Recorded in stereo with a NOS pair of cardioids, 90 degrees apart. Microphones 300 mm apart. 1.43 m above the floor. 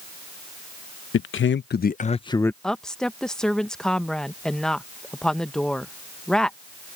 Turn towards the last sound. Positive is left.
turn(degrees=0)